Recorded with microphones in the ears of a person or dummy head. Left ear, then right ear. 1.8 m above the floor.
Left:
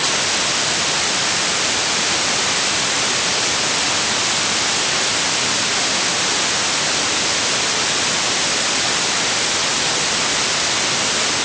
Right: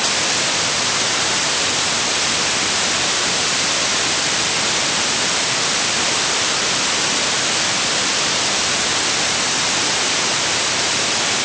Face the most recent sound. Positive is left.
No sound to turn to.